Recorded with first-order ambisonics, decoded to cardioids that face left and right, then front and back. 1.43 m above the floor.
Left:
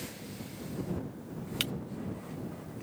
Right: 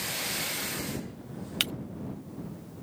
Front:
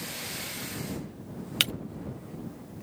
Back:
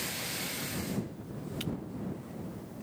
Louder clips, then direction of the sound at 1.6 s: Right 4 dB, front 15 dB; 20° right.